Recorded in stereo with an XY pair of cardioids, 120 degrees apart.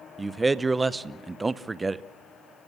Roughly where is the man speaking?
Ahead.